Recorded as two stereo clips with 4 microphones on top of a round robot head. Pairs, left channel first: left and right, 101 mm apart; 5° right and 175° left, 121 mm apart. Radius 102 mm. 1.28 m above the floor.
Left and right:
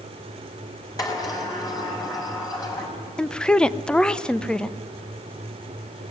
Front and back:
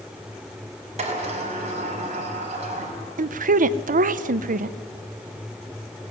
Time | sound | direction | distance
1.0 | a sliding door | 145° left | 5.5 m
3.2 | a woman speaking | 170° left | 0.8 m